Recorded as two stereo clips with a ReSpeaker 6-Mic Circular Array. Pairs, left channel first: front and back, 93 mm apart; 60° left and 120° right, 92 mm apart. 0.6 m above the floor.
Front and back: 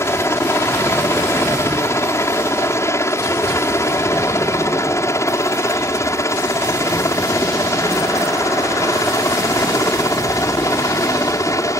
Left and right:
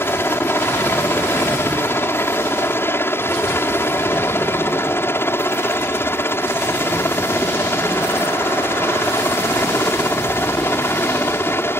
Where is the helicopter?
25° left; by 11.8 s 20° left.